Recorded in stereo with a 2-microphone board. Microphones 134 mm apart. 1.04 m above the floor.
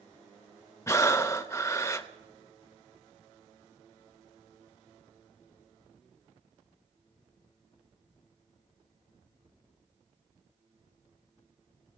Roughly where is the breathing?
Left.